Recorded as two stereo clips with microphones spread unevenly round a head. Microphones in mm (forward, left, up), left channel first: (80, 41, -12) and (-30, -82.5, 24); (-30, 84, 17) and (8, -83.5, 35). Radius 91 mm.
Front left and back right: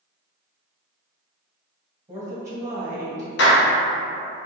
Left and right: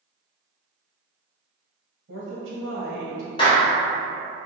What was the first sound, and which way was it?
A woman speaking, 60° right.